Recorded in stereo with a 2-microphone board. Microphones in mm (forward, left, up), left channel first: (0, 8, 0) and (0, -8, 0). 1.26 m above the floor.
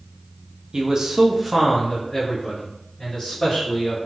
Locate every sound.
0.7 s a man speaking: 40° right (ahead or behind), 0.6 m; by 4.0 s 50° left (ahead or behind), 1.5 m